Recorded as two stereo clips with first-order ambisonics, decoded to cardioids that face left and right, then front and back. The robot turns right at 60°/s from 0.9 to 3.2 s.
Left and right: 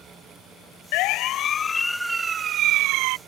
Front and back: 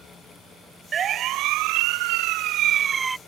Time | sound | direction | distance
0.9 | a siren | 110° left | ?